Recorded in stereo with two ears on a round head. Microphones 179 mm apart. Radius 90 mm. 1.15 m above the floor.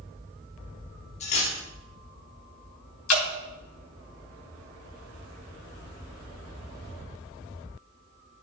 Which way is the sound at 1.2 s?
35° left (ahead or behind).